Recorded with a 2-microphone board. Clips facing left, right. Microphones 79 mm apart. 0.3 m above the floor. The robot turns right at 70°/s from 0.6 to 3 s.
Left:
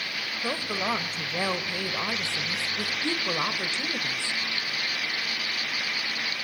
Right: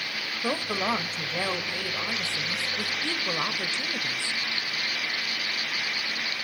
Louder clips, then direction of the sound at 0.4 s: Right 2 dB; 15° right (ahead or behind).